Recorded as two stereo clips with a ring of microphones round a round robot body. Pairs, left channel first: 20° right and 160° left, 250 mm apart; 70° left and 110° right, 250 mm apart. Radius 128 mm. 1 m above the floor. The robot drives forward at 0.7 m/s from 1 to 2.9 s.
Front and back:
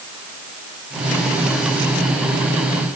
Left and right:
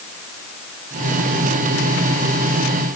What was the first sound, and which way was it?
Only background noise.